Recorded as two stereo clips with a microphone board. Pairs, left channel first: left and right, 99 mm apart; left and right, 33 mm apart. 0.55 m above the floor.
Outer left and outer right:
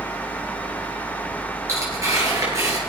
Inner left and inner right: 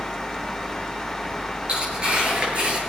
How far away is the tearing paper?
About 6.5 m.